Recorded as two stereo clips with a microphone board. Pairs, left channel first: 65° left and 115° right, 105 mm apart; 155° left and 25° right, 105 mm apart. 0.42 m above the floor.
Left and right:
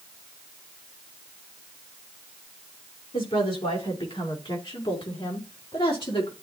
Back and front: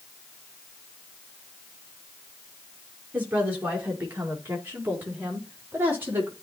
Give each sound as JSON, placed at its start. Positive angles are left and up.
{"t": 3.1, "sound": "a woman speaking", "azimuth_deg": 50, "distance_m": 5.5}